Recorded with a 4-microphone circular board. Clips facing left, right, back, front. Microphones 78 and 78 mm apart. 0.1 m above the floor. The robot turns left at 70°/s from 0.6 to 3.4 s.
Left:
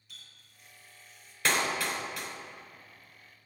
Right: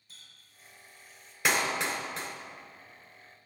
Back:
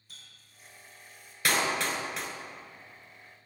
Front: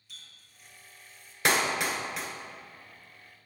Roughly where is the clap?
Ahead right.